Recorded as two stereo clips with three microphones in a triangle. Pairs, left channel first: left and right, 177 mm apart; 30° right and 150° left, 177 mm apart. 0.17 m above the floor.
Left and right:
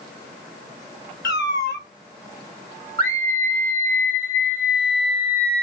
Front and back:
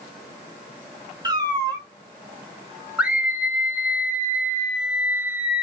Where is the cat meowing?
85° left, 0.5 m.